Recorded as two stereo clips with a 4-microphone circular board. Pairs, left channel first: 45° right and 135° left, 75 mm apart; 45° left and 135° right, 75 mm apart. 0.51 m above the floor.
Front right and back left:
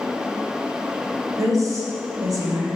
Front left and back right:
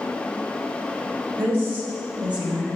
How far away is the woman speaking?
About 2.5 m.